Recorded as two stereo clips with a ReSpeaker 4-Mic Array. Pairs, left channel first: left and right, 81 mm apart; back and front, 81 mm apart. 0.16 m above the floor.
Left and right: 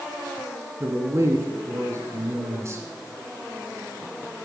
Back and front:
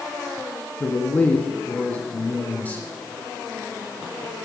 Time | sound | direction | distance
0.8 | a man speaking | 120° right | 1.9 m